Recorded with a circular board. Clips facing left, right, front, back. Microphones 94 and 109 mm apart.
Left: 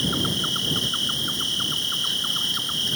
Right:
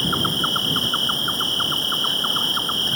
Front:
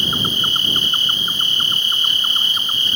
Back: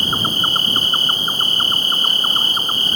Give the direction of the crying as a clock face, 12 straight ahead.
No crying in this recording.